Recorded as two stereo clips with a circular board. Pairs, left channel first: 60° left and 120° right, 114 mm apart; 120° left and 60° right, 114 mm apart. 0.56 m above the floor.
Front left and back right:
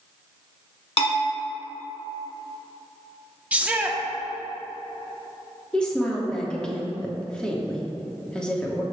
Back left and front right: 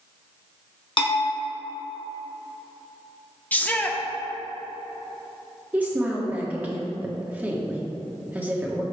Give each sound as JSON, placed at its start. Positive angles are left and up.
{"t": 1.0, "sound": "a bell", "azimuth_deg": 85, "distance_m": 1.7}
{"t": 3.5, "sound": "a shout", "azimuth_deg": 175, "distance_m": 0.8}
{"t": 5.7, "sound": "a woman speaking", "azimuth_deg": -5, "distance_m": 1.0}